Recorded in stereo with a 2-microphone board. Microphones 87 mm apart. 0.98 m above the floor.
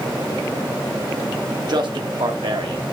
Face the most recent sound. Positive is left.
turn(degrees=-80)